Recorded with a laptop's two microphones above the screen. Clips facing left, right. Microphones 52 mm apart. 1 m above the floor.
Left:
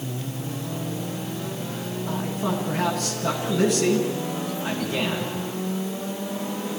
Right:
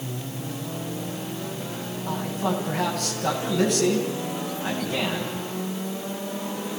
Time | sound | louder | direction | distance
2.1 | a man speaking | right 1 dB | 50° right (ahead or behind) | 9.5 m